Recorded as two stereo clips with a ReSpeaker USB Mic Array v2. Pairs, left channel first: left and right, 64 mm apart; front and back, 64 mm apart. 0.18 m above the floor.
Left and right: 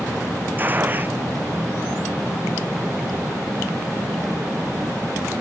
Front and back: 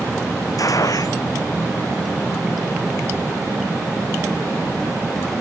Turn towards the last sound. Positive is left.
turn(degrees=-30)